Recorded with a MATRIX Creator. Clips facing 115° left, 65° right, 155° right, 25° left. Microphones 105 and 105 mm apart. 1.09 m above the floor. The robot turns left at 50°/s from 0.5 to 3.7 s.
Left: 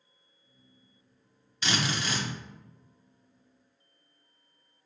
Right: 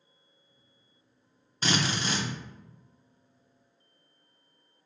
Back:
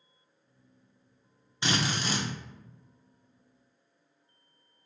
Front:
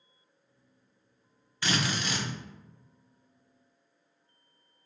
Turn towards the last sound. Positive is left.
turn(degrees=160)